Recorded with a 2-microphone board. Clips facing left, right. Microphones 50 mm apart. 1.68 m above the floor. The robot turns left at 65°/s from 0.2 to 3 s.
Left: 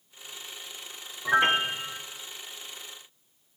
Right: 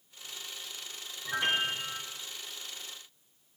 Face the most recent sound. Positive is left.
turn(degrees=-60)